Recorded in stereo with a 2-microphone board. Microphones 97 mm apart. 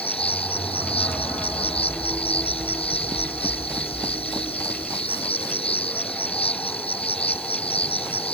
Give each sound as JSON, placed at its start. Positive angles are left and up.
{"t": 0.0, "sound": "an insect", "side_deg": 85}